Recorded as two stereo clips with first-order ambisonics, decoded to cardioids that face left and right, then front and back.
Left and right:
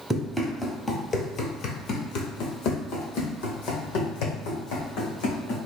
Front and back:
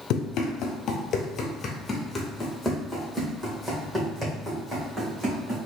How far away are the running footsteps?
About 1.0 m.